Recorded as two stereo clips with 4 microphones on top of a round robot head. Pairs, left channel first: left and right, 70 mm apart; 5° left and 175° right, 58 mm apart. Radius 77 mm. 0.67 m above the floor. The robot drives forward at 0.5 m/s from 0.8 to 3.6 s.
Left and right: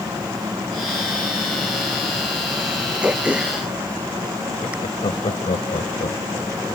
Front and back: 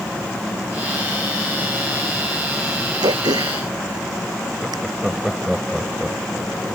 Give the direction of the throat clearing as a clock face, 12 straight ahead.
6 o'clock.